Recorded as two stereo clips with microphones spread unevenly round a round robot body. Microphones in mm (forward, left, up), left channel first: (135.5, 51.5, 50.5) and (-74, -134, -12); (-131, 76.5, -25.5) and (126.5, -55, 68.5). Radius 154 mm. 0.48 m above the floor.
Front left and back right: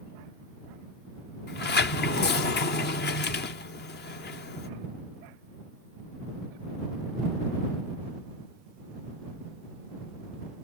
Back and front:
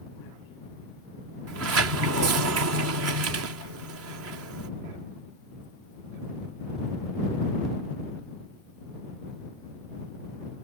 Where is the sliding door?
Straight ahead.